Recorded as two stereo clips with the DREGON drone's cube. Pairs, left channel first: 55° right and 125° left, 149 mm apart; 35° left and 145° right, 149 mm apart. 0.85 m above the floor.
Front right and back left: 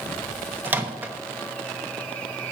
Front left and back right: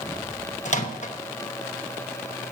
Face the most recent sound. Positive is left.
turn(degrees=50)